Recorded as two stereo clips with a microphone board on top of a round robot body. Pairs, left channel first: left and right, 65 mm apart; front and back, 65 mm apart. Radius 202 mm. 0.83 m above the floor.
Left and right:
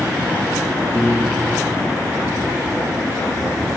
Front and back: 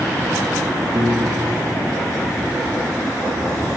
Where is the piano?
175° left, 1.8 m.